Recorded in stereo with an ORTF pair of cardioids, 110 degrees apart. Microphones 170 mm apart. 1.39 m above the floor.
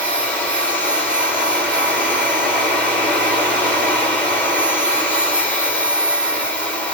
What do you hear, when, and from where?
0.0 s a machine running: 5° left, 0.8 m